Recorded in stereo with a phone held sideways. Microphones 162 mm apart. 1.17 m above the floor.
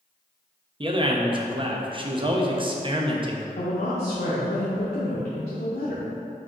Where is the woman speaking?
70° left (ahead or behind), 0.7 m.